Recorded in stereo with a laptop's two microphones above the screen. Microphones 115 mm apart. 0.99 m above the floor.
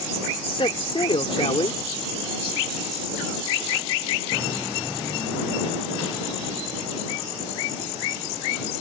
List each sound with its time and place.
0.4 s a man speaking: 50° left (ahead or behind)